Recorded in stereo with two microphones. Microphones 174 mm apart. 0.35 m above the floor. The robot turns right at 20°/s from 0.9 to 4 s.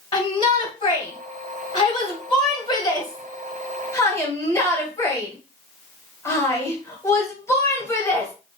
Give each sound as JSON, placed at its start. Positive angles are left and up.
{"t": 0.1, "sound": "a shout", "side_deg": 25, "distance_m": 1.5}